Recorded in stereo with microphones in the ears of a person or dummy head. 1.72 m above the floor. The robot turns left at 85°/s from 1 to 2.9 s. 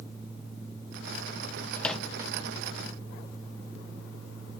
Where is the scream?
No scream in this recording.